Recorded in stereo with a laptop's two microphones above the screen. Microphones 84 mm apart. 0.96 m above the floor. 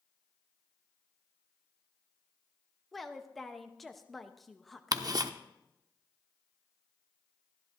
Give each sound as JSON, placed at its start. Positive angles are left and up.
{"t": 2.9, "sound": "a woman speaking", "side_deg": 0, "distance_m": 0.7}
{"t": 4.9, "sound": "ticking", "side_deg": -45, "distance_m": 0.6}